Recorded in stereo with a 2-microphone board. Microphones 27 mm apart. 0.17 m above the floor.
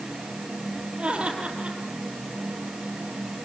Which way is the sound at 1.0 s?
45° right (ahead or behind).